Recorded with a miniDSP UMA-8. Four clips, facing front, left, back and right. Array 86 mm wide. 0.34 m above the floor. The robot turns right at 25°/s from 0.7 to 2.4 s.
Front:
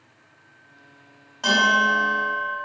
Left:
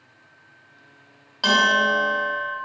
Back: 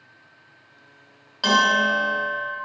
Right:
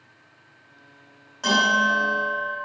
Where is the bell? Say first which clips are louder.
Left 1 dB, even; 130° left, 1.2 m; by 2.5 s 155° left, 1.2 m.